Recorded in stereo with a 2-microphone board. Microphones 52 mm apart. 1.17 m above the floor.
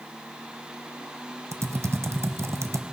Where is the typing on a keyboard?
65° right (ahead or behind), 0.6 m.